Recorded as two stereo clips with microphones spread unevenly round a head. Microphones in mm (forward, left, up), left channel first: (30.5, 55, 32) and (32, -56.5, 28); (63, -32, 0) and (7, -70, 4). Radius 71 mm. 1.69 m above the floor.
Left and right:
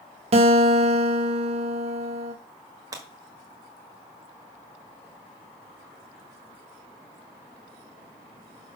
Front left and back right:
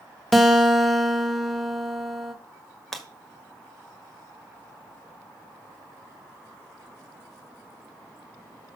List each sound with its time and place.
0.3 s a guitar: 60° right, 1.4 m
2.9 s breaking glass: 50° right, 1.6 m